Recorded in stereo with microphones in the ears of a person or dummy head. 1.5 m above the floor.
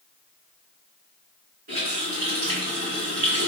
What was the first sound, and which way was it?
A running tap, 50° right (ahead or behind).